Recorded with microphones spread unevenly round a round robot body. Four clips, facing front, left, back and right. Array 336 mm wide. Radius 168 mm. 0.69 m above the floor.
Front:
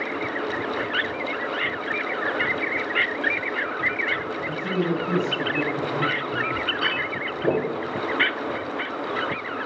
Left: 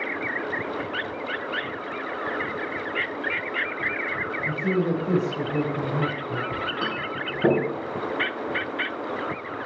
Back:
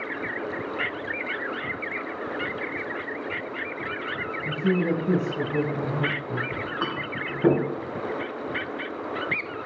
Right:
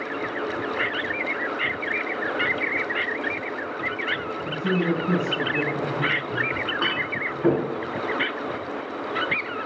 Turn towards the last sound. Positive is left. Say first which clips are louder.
# right 2 dB, front 3 dB
turn(degrees=130)